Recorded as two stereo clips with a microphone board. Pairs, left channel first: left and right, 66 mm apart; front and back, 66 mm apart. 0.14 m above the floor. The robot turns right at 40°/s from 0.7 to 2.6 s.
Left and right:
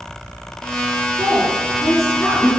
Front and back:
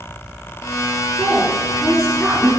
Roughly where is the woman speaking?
Ahead left.